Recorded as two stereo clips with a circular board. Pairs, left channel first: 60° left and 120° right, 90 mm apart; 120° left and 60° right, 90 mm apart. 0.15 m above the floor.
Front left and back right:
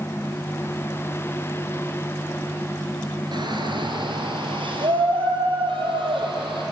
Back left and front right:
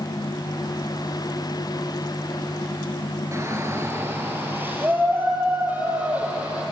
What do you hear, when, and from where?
3.3 s a shout: 110° right, 2.5 m; by 6.6 s 135° right, 5.5 m